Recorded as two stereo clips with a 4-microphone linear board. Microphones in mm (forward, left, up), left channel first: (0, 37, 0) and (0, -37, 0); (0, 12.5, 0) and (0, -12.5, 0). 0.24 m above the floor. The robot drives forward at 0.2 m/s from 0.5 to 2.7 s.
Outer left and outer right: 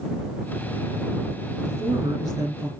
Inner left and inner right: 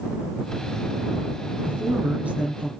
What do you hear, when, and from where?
1.6 s a man speaking: 60° right (ahead or behind), 3.5 m